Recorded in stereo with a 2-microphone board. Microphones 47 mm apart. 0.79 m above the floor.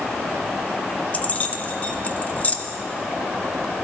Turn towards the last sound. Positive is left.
turn(degrees=30)  # may be behind; listen again after turning